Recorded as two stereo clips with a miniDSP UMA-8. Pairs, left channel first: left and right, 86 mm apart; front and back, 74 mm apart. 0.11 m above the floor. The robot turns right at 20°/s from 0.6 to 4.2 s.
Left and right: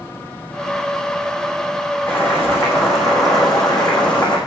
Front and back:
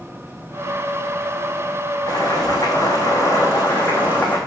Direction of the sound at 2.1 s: 25° left.